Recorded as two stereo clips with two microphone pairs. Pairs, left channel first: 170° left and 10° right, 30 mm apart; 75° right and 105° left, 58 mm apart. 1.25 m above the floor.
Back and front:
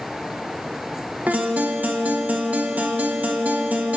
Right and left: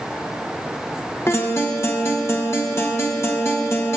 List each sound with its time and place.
1.3 s a guitar: 35° right, 1.4 m